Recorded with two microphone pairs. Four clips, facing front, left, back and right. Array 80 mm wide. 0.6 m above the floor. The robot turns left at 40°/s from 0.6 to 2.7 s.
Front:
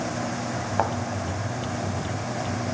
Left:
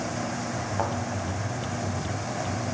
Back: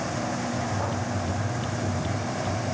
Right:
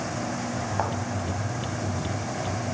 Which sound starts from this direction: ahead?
A thud, at 0.8 s.